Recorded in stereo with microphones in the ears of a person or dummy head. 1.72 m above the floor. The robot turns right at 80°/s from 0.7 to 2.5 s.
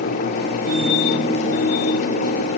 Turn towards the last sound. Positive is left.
No sound to turn to.